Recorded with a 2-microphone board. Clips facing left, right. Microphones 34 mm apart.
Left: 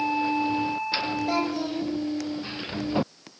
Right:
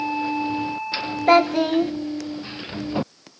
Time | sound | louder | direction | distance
1.3 | a child speaking | right 15 dB | 60° right (ahead or behind) | 1.0 m